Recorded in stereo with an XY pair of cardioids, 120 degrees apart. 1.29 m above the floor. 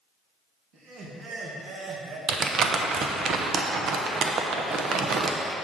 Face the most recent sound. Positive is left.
turn(degrees=-50)